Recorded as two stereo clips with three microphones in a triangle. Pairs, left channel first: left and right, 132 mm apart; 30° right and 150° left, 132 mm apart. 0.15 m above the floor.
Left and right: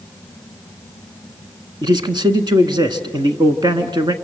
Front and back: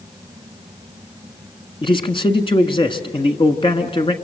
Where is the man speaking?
50° right, 1.4 m.